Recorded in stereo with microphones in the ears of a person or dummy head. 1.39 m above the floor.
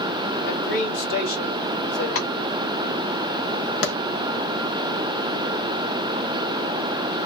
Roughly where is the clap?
Left.